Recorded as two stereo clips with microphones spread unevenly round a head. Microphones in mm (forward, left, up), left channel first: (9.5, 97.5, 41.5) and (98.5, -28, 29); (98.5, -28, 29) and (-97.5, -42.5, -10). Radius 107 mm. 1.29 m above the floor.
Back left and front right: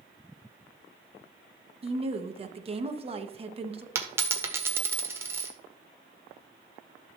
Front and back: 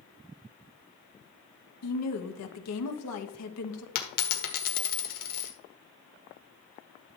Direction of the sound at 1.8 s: Straight ahead.